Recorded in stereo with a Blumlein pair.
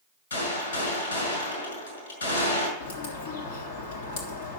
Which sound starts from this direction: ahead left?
A bird, at 2.8 s.